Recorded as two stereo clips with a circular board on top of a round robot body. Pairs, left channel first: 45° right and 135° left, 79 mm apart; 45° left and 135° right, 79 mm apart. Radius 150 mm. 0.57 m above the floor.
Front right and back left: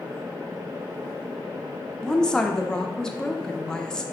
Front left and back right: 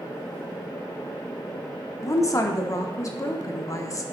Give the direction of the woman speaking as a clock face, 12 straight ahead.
11 o'clock.